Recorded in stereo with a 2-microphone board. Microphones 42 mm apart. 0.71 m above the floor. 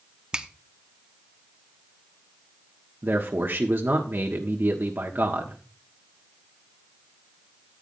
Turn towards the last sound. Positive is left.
turn(degrees=-55)  # may be behind; listen again after turning